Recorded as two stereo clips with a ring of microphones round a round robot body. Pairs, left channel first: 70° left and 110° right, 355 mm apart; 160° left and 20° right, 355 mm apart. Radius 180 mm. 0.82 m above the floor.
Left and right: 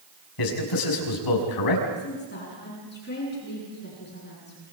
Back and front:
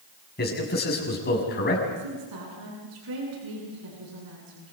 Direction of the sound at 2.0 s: 5° left.